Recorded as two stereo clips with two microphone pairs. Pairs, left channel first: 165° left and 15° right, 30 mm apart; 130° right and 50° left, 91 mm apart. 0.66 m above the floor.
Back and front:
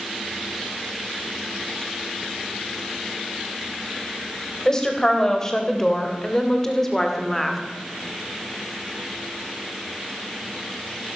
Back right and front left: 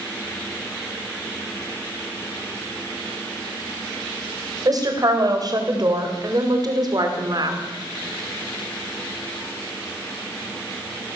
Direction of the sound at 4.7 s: 90° left.